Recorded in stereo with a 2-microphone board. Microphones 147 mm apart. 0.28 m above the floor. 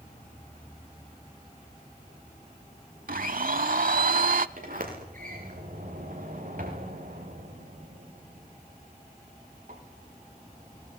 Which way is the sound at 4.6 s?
70° right (ahead or behind).